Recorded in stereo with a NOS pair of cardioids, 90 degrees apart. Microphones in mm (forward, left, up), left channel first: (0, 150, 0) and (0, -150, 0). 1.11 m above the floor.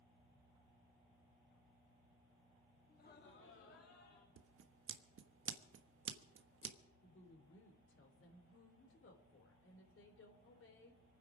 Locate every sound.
2.9 s laughter: 30° left, 2.5 m; by 4.3 s 60° left, 3 m
4.4 s scissors: 45° right, 1.3 m
7.0 s a woman speaking: 45° left, 3.5 m